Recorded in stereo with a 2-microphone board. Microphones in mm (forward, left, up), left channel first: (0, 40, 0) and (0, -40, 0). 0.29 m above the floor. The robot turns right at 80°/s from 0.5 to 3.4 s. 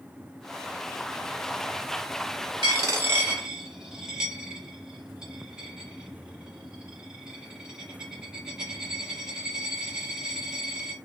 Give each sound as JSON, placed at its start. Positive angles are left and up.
{"t": 2.6, "sound": "a dropped coin", "side_deg": -65, "distance_m": 0.9}